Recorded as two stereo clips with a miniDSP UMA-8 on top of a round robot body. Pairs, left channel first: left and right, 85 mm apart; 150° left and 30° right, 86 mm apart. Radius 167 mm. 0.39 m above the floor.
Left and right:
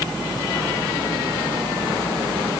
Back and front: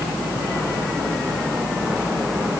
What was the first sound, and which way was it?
Only background noise.